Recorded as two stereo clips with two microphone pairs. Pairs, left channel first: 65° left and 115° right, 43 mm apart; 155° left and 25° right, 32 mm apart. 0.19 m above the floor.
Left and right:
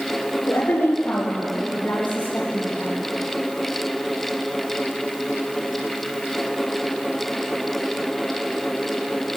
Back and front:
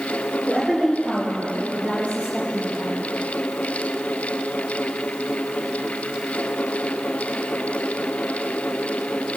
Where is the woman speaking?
55° left, 4 m; by 3.0 s 20° left, 6 m.